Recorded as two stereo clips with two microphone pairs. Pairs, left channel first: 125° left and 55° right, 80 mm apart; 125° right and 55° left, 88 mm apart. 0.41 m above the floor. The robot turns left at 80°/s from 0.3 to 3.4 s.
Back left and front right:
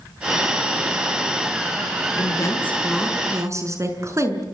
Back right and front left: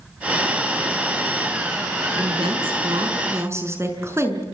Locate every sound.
2.2 s a woman speaking: 95° left, 5.5 m; by 4.4 s straight ahead, 5.5 m